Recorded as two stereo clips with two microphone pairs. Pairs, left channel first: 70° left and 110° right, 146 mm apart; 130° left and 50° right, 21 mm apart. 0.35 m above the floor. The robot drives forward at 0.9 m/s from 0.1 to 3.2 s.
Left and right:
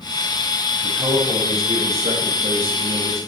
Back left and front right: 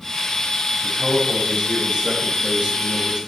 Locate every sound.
0.8 s a man speaking: 50° right, 2.0 m; by 3.2 s 130° right, 2.0 m